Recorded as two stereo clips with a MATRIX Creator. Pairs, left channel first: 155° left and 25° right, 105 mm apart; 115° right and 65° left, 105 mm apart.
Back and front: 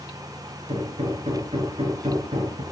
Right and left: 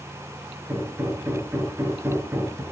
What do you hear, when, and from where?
0.7 s hammering: straight ahead, 5.5 m